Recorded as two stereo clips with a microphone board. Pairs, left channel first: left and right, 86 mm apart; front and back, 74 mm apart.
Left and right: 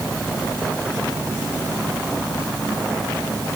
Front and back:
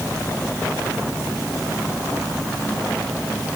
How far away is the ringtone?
No ringtone in this recording.